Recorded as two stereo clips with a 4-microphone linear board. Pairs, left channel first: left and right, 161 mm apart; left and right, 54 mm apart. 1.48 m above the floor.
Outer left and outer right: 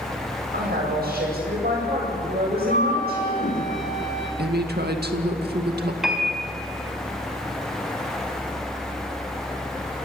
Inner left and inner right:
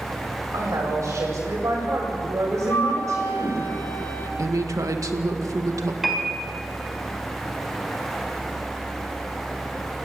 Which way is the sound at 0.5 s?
70° right (ahead or behind).